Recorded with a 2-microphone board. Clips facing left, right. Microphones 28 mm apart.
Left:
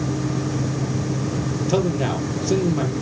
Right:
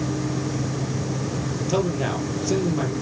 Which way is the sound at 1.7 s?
5° left (ahead or behind).